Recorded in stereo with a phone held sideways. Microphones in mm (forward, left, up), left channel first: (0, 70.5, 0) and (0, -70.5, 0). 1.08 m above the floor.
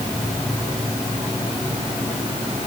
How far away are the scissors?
No scissors in this recording.